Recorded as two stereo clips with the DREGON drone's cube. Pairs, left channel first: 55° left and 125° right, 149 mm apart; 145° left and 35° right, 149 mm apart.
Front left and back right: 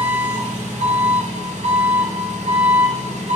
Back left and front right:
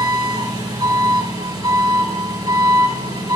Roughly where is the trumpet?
I don't hear a trumpet.